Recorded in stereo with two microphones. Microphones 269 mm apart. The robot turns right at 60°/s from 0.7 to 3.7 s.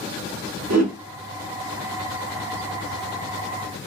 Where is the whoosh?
70° right (ahead or behind), 0.9 m.